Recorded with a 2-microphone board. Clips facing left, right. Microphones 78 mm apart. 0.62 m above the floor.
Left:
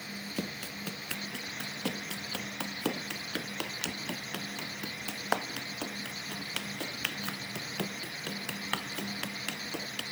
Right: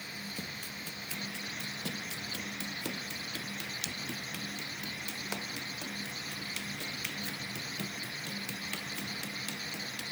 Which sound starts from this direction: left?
Running footsteps, at 0.4 s.